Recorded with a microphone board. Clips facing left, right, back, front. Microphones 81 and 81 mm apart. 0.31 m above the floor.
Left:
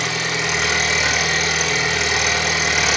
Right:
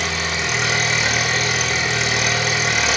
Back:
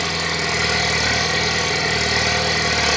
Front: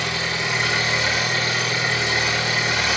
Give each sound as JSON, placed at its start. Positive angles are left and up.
{"t": 0.0, "sound": "an engine running", "azimuth_deg": 175, "distance_m": 6.0}